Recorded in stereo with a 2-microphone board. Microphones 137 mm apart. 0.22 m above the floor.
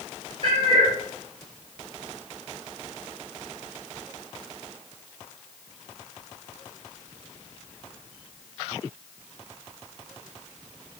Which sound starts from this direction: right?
A cat meowing, at 0.4 s.